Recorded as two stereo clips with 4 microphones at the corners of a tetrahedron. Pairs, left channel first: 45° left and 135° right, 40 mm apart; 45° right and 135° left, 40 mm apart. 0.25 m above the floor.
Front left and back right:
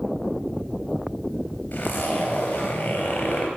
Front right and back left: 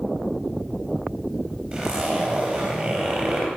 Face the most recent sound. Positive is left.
turn(degrees=80)